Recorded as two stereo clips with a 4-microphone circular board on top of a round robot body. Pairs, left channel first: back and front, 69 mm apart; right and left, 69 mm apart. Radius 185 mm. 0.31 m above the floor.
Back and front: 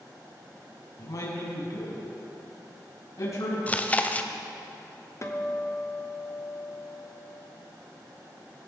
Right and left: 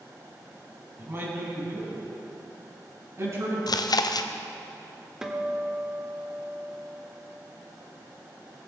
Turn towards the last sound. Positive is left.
turn(degrees=170)